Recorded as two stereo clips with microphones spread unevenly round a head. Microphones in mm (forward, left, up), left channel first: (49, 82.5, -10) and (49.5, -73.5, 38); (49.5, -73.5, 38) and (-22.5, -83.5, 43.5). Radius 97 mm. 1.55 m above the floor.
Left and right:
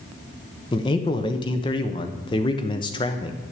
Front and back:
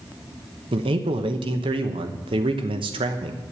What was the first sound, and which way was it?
A man speaking, 160° left.